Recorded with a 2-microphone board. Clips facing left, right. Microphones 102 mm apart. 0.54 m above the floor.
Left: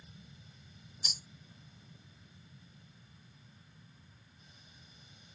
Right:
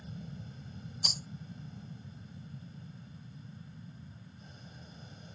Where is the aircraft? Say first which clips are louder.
Right 11 dB; 50° right (ahead or behind).